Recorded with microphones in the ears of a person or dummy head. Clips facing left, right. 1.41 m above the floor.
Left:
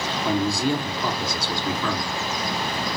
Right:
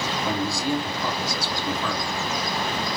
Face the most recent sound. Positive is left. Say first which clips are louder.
# left 4 dB
turn(degrees=45)  # may be behind; listen again after turning